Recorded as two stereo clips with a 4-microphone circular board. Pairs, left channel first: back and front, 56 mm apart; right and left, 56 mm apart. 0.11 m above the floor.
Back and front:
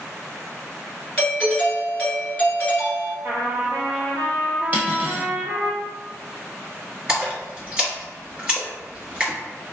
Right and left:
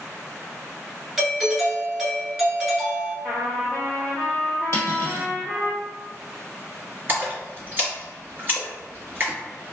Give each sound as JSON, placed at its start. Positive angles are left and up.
{"t": 1.2, "sound": "a doorbell", "azimuth_deg": 150, "distance_m": 1.6}
{"t": 3.2, "sound": "a trumpet", "azimuth_deg": 10, "distance_m": 1.7}
{"t": 4.7, "sound": "cutlery clinking", "azimuth_deg": -50, "distance_m": 1.4}
{"t": 7.1, "sound": "a splash", "azimuth_deg": 55, "distance_m": 1.8}